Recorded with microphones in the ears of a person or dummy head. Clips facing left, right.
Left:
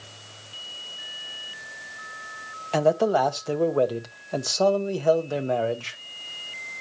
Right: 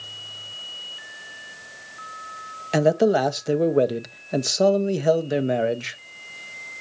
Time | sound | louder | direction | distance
2.7 | a man speaking | right 3 dB | 20° right (ahead or behind) | 0.8 m